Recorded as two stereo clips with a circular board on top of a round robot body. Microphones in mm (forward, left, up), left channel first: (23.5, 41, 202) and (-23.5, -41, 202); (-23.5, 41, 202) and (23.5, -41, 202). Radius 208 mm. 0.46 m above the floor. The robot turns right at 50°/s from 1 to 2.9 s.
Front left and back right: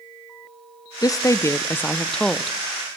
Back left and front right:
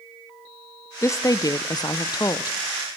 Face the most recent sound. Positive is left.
turn(degrees=175)